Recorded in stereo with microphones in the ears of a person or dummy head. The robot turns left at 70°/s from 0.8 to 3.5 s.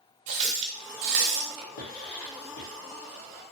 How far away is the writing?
About 1.0 m.